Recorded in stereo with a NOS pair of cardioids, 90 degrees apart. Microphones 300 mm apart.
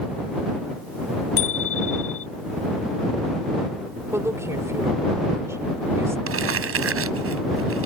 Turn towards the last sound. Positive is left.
turn(degrees=-50)